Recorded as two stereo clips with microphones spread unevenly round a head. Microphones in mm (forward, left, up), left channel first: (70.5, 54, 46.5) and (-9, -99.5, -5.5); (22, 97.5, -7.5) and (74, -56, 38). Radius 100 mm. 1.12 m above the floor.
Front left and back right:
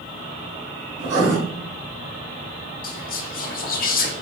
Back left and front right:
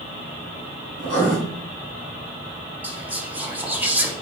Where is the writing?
100° right, 1.9 m.